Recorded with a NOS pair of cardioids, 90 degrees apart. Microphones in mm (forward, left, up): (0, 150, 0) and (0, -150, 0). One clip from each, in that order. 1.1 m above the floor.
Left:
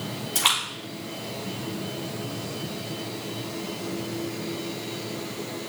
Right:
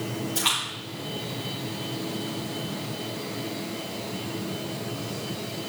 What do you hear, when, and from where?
0.3 s a splash: 55° left, 3.5 m